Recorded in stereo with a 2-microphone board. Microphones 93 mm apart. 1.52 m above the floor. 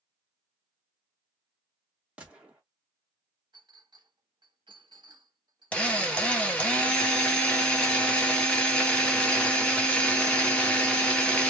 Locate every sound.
2.2 s a gunshot: 10° right (ahead or behind), 1.0 m
3.5 s a clink: 55° right (ahead or behind), 1.1 m
5.7 s a drill: 15° left (ahead or behind), 0.8 m